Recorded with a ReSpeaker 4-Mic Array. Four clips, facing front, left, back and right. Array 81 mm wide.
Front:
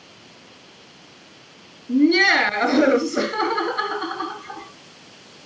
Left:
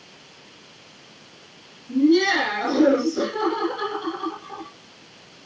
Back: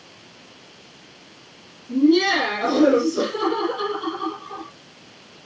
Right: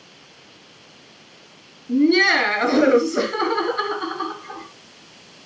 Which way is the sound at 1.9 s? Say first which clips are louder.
Right 1 dB, even; 50° right.